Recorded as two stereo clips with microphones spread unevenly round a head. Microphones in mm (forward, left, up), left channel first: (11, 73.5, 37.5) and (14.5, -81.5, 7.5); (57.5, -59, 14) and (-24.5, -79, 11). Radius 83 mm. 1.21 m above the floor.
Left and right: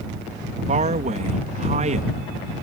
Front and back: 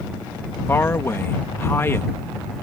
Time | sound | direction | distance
0.7 | a man speaking | 50° right | ?